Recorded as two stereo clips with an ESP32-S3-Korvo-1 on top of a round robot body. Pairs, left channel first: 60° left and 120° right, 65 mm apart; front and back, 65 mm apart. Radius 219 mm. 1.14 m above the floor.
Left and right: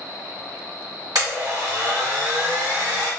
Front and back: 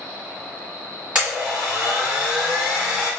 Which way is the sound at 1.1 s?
120° right.